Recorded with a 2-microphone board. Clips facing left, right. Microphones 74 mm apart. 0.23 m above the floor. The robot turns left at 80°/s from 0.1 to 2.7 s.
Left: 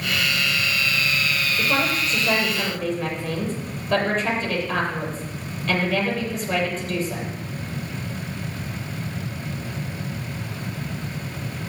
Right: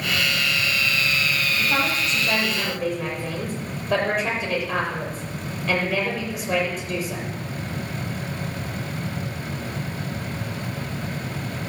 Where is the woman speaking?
75° left, 8 m; by 7.2 s 15° right, 8 m.